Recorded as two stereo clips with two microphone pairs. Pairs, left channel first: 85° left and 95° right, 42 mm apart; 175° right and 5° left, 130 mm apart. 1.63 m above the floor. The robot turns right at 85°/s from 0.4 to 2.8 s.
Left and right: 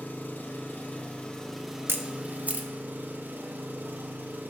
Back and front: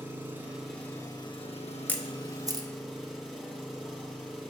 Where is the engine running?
75° left, 1.1 m; by 4.5 s 80° right, 1.1 m.